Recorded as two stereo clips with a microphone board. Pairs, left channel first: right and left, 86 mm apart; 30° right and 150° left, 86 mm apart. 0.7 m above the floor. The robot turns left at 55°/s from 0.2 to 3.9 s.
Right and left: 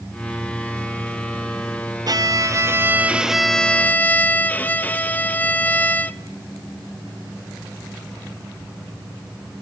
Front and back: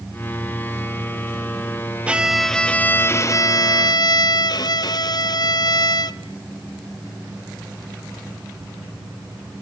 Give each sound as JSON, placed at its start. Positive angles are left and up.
{"t": 2.1, "sound": "a violin", "azimuth_deg": 75, "distance_m": 0.7}